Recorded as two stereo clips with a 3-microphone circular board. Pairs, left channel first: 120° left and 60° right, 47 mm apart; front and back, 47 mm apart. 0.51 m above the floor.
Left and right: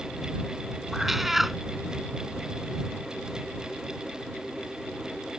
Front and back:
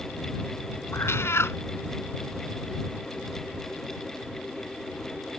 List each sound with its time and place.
0.9 s a cat meowing: 25° left